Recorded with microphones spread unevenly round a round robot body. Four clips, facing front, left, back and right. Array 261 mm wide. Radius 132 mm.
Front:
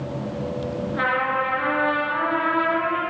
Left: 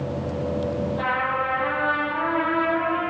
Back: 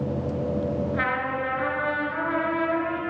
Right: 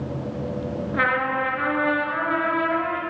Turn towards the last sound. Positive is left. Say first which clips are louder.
# right 5 dB, front 4 dB
turn(degrees=-80)